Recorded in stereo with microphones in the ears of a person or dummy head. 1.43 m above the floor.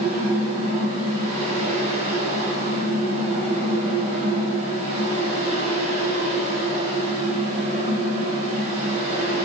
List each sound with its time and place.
0.0 s a fan: 35° right (ahead or behind), 1.0 m